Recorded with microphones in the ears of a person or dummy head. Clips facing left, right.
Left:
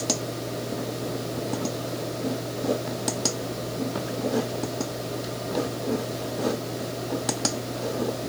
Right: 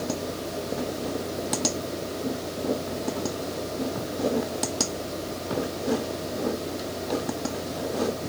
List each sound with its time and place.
Only background noise.